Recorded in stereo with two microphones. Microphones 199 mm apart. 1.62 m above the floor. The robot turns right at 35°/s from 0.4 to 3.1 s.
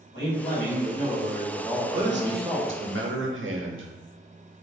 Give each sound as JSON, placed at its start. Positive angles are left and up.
{"t": 0.1, "sound": "a man speaking", "azimuth_deg": 115, "distance_m": 1.8}
{"t": 1.9, "sound": "a man speaking", "azimuth_deg": -125, "distance_m": 0.6}